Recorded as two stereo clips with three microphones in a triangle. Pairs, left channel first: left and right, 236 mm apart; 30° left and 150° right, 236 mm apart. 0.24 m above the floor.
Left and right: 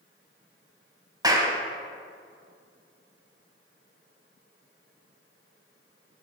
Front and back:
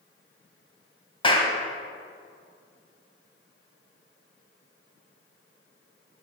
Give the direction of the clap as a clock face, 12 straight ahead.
1 o'clock.